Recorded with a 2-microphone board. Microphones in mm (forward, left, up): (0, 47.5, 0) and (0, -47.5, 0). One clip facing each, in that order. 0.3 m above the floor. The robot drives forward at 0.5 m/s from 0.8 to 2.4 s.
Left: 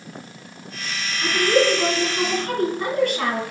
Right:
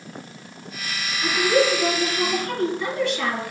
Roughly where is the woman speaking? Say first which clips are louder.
Left 1 dB; left.